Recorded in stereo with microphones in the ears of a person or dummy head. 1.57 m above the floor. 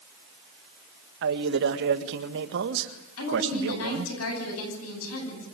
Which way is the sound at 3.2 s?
90° left.